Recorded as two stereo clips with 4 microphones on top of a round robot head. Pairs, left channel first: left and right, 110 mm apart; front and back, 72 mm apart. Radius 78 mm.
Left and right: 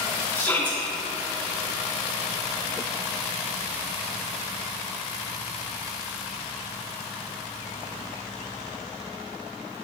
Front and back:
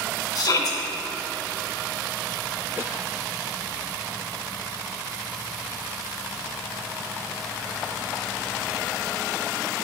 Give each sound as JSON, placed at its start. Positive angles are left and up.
{"t": 0.3, "sound": "a shout", "azimuth_deg": 20, "distance_m": 1.5}